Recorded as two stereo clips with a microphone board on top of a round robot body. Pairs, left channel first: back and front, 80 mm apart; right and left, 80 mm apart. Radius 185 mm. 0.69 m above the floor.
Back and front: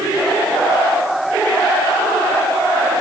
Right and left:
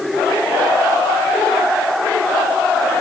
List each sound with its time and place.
Only background noise.